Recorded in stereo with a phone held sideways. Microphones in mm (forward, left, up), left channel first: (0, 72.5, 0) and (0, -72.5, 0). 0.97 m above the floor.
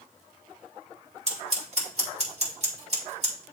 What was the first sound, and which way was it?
Scissors, 50° right (ahead or behind).